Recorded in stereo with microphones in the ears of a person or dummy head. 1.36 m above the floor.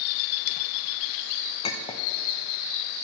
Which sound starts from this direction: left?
A clink, at 1.6 s.